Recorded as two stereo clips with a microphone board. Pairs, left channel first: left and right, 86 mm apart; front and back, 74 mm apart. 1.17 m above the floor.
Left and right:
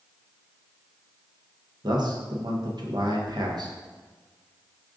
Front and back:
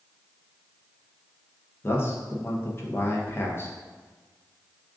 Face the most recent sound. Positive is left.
turn(degrees=-55)